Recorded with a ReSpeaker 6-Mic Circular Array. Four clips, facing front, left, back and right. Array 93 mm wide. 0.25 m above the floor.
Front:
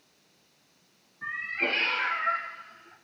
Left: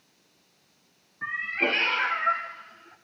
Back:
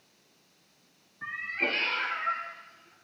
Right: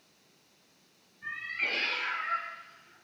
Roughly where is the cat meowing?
Left.